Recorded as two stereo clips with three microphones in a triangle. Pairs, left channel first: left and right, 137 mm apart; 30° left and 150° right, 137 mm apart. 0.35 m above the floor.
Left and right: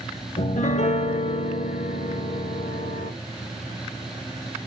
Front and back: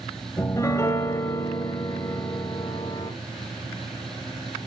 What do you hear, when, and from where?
0.4 s a piano: 95° left, 0.6 m